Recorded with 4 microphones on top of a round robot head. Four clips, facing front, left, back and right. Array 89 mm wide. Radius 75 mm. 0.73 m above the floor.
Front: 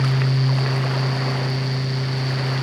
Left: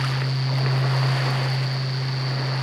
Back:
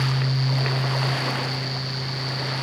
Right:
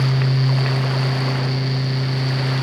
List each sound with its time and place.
Only background noise.